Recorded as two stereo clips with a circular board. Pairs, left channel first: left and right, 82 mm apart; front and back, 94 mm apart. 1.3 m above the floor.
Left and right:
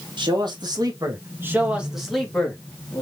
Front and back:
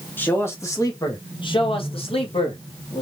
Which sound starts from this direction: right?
A man speaking, at 0.2 s.